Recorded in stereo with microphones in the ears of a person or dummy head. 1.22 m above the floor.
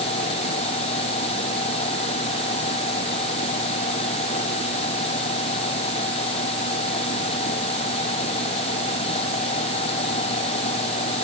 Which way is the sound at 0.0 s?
35° left (ahead or behind).